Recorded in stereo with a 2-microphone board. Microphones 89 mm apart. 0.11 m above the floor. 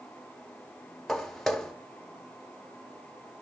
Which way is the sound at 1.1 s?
5° left (ahead or behind).